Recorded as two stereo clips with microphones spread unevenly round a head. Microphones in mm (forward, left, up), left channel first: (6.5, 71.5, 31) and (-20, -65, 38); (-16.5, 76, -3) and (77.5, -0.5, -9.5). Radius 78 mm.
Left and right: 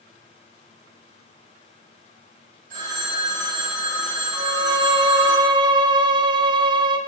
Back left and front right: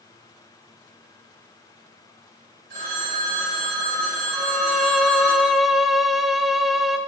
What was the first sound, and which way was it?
A phone ringing, 65° right.